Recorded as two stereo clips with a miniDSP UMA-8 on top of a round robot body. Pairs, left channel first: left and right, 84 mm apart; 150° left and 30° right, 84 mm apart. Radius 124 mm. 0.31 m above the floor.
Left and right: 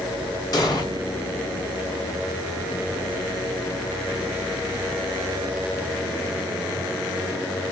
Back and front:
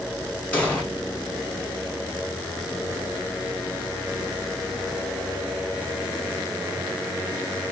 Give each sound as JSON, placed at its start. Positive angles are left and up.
{"t": 0.5, "sound": "an explosion", "azimuth_deg": 80, "distance_m": 1.7}